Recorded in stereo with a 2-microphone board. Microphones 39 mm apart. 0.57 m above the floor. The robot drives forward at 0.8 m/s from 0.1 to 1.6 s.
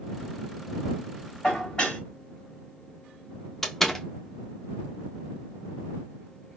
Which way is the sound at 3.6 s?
10° left (ahead or behind).